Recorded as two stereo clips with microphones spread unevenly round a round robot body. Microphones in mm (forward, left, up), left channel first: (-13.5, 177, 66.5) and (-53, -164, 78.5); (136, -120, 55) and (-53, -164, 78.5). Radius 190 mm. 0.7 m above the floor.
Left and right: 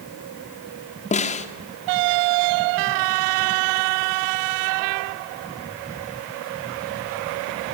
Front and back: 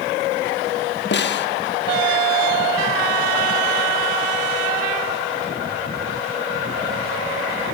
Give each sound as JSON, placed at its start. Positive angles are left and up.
{"t": 1.1, "sound": "a snare drum", "azimuth_deg": 15, "distance_m": 1.7}